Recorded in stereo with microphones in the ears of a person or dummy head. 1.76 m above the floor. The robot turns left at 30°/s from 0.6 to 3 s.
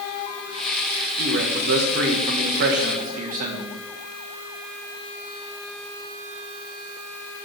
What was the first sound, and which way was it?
A man speaking, 70° right.